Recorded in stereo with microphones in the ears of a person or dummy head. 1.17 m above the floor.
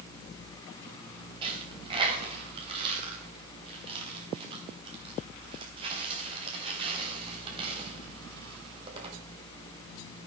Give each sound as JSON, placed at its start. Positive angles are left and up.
{"t": 1.4, "sound": "a dropped coin", "side_deg": -30, "distance_m": 3.5}